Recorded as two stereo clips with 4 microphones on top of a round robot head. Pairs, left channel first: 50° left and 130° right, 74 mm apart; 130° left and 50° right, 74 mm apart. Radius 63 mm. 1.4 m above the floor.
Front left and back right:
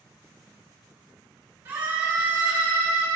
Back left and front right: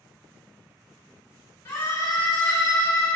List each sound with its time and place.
1.6 s a scream: straight behind, 1.7 m